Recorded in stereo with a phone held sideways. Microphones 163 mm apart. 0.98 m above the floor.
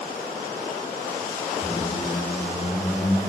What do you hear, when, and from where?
1.6 s a squeak: centre (ahead or behind), 8 m